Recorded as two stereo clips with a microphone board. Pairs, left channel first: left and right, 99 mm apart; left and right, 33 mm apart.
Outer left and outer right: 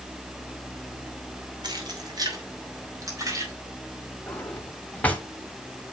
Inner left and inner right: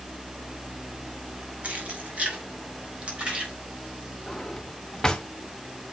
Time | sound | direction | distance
1.6 | keys jangling | 50° right (ahead or behind) | 3 m
4.3 | a drawer | 15° left (ahead or behind) | 1.5 m